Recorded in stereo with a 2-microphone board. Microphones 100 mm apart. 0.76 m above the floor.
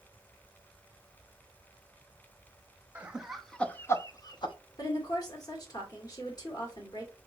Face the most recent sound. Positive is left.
turn(degrees=40)  # may be behind; listen again after turning